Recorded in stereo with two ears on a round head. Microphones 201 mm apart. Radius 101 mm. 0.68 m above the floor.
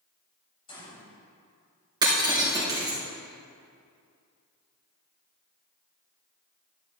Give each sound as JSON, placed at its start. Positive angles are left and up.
{"t": 0.7, "sound": "a gunshot", "side_deg": 25, "distance_m": 3.5}
{"t": 2.0, "sound": "breaking glass", "side_deg": -20, "distance_m": 4.0}